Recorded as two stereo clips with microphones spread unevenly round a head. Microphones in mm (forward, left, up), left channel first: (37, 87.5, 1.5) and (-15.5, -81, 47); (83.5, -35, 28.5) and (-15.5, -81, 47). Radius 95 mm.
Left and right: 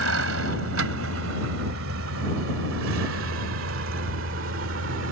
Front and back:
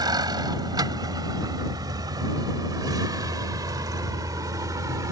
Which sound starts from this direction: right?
A vehicle, at 0.0 s.